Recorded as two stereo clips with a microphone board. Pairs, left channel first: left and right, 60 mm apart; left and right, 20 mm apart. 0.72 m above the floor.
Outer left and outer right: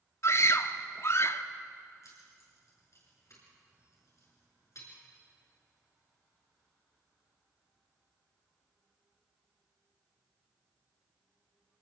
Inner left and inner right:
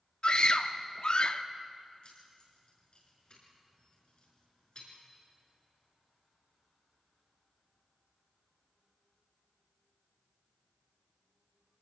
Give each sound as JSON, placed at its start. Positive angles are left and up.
{"t": 0.2, "sound": "a scream", "side_deg": 50, "distance_m": 1.0}
{"t": 2.0, "sound": "keys jangling", "side_deg": 55, "distance_m": 6.0}